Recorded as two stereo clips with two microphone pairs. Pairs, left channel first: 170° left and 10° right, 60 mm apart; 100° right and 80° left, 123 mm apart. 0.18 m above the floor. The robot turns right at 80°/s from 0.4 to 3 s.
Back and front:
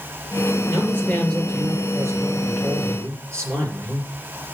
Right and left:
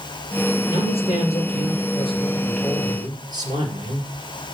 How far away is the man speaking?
About 4 m.